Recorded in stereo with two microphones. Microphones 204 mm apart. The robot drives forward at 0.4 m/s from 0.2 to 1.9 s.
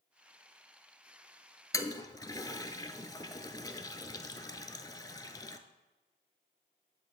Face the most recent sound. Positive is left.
turn(degrees=20)  # may be behind; listen again after turning